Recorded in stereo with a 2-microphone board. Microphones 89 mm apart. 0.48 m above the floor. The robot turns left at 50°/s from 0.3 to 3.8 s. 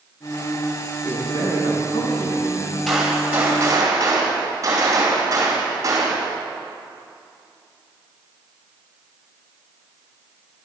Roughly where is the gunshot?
Ahead.